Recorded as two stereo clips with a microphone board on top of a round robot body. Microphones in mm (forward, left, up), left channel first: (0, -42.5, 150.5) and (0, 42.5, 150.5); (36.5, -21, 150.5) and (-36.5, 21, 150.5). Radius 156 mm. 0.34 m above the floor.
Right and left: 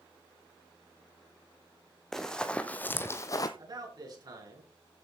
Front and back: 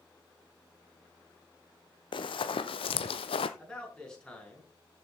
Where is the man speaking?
50° left, 5.5 m.